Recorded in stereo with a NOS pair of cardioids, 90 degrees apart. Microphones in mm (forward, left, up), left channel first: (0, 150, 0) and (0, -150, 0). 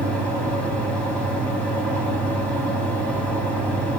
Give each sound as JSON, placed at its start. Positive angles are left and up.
{"t": 0.0, "sound": "a fan", "azimuth_deg": 5, "distance_m": 5.0}